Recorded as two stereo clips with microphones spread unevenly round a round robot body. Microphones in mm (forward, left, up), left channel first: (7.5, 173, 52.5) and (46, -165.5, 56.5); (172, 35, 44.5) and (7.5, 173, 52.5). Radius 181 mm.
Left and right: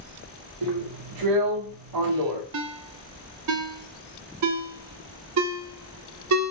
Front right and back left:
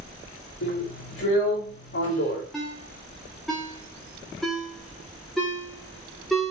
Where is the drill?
75° right, 2.5 m.